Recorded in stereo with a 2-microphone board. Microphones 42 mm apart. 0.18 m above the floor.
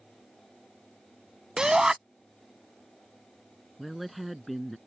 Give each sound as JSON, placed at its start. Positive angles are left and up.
{"t": 1.6, "sound": "a shout", "side_deg": -20}
{"t": 3.8, "sound": "a woman speaking", "side_deg": -5}